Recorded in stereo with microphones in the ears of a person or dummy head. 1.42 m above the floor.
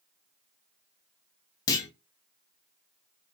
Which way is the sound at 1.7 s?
25° left (ahead or behind).